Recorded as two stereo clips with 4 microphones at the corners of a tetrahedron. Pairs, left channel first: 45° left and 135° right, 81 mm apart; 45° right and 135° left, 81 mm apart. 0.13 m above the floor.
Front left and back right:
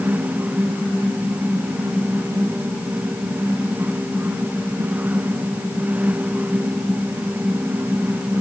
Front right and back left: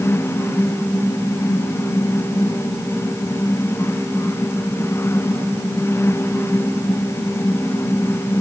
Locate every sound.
Only background noise.